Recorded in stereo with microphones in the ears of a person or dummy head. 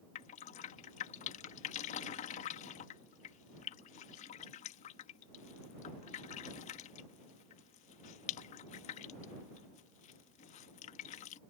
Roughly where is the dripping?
Left.